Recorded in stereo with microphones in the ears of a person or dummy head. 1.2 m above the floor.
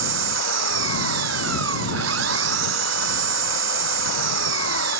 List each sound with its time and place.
0.0 s an engine running: 80° right